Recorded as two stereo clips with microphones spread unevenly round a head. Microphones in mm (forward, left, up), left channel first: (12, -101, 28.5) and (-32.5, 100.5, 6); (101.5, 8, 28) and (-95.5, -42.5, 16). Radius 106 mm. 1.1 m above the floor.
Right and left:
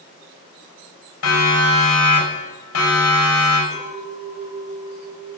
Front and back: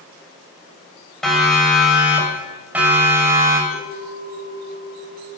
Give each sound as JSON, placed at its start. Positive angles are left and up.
{"t": 1.2, "sound": "a siren", "azimuth_deg": -75, "distance_m": 6.0}
{"t": 3.7, "sound": "a clink", "azimuth_deg": 45, "distance_m": 5.5}